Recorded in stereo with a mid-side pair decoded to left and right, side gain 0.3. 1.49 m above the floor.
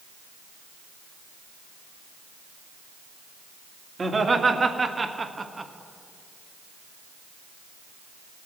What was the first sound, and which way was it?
Laughter, 45° right.